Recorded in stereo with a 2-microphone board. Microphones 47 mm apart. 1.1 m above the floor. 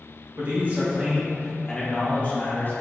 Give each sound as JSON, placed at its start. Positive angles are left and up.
{"t": 0.4, "sound": "a man speaking", "side_deg": -50, "distance_m": 1.8}